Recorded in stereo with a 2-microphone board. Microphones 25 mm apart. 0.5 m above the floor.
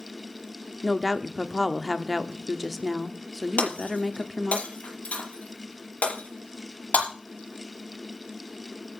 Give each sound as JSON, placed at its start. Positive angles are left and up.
{"t": 0.8, "sound": "a woman speaking", "side_deg": -5, "distance_m": 1.1}
{"t": 3.6, "sound": "breaking glass", "side_deg": 85, "distance_m": 5.5}